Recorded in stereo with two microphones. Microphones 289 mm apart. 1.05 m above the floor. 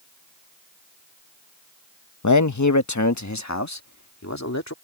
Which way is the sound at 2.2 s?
80° left.